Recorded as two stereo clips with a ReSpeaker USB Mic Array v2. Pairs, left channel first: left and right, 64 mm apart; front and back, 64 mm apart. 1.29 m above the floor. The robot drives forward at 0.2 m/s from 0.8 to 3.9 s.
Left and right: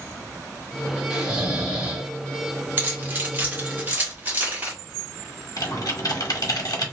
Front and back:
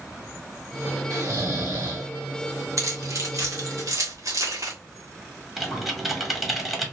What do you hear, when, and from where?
1.1 s snoring: 165° right, 1.6 m
2.8 s keys jangling: 150° right, 1.3 m; by 4.7 s 155° right, 1.5 m
5.6 s typing on a keyboard: 90° left, 1.1 m